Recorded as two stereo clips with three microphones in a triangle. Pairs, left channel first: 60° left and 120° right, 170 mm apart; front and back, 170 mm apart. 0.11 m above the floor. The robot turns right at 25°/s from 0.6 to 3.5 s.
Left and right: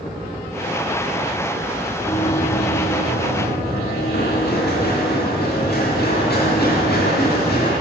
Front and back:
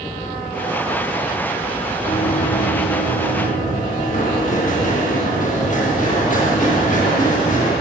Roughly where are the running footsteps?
Ahead.